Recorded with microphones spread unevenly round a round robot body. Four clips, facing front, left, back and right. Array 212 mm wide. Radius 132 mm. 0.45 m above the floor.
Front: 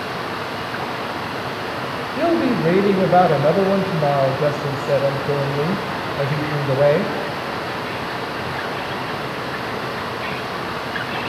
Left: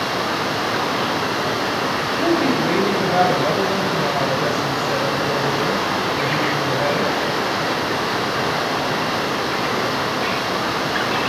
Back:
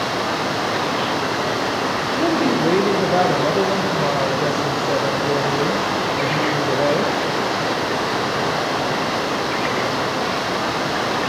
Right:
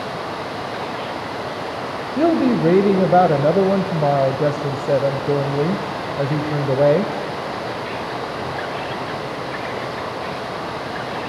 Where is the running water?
140° left, 4.5 m.